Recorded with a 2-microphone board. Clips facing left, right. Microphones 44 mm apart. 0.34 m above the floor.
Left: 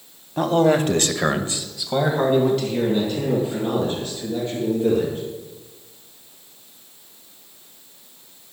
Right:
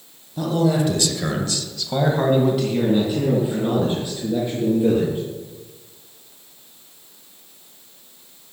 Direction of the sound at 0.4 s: 45° left (ahead or behind).